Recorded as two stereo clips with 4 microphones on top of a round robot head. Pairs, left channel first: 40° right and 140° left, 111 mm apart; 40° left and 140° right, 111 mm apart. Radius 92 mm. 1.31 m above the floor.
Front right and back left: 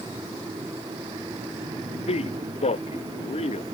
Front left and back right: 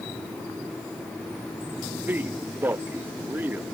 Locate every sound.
1.8 s a man speaking: 65° right